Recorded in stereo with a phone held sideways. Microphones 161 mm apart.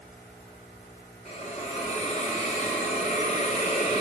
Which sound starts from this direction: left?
A hiss, at 1.2 s.